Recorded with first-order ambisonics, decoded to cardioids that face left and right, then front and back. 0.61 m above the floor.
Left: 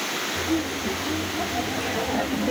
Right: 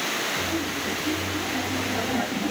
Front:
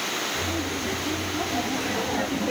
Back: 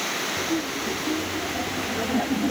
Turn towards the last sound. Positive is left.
turn(degrees=45)